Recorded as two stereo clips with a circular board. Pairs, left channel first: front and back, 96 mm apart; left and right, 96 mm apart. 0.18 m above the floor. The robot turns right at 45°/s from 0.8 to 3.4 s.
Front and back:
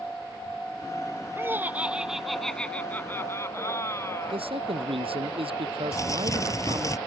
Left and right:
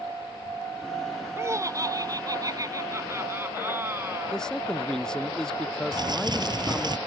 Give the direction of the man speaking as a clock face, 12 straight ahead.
6 o'clock.